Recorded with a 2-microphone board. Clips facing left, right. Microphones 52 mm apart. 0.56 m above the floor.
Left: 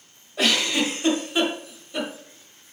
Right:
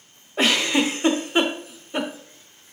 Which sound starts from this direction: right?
A giggle, at 0.4 s.